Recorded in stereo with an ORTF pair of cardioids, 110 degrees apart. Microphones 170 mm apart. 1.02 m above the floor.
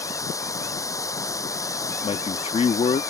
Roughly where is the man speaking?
Ahead left.